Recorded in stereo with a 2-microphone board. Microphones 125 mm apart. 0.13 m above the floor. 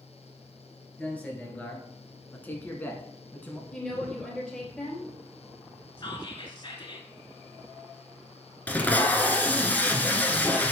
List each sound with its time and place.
1.0 s a man speaking: 10° left (ahead or behind), 1.6 m; by 3.6 s 15° left (ahead or behind), 1.1 m
3.7 s a woman speaking: 5° left (ahead or behind), 2.5 m
6.0 s whispering: 35° left (ahead or behind), 1.4 m
8.7 s tape being pulled: 15° left (ahead or behind), 0.9 m